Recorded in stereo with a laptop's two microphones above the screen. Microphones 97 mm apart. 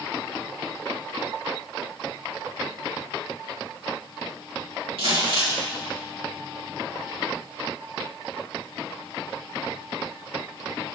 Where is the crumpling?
80° right, 3 m.